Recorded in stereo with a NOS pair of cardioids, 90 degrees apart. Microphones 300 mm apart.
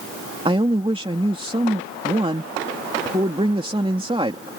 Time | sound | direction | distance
0.5 | a man speaking | 20° right | ?